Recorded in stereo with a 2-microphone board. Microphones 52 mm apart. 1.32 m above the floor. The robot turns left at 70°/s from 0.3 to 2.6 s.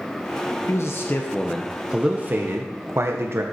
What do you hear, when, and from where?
0.7 s a man speaking: 70° left, 0.6 m; by 3.4 s 60° right, 0.6 m